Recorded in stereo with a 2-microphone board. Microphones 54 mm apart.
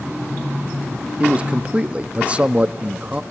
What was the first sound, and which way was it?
A man speaking, 25° right (ahead or behind).